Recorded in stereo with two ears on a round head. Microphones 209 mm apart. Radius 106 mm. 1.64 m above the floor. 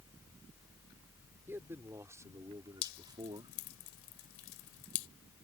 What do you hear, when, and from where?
1.5 s a man speaking: 10° right (ahead or behind); by 3.5 s 20° right (ahead or behind)
2.8 s dripping: 60° left (ahead or behind)